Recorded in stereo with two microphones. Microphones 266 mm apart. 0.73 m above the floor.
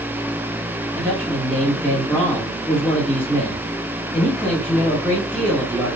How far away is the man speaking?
About 1.6 m.